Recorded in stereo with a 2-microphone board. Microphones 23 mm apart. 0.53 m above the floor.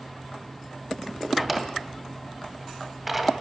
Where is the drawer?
10° right (ahead or behind), 2 m.